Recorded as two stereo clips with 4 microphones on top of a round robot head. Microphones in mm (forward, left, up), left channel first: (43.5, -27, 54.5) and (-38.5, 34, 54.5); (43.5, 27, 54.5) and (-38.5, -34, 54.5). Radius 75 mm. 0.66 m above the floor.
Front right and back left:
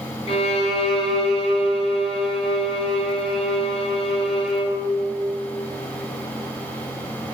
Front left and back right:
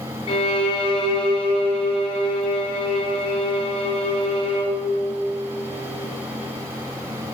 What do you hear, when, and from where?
0.3 s a violin: straight ahead, 1.4 m